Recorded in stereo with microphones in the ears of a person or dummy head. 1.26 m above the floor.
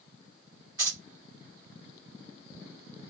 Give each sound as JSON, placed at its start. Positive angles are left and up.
{"t": 0.8, "sound": "keys jangling", "side_deg": -20, "distance_m": 1.9}